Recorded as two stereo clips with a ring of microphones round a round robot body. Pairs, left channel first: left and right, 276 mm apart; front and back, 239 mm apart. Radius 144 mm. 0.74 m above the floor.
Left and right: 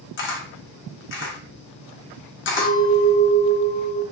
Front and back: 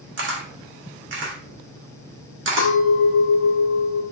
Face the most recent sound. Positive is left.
turn(degrees=15)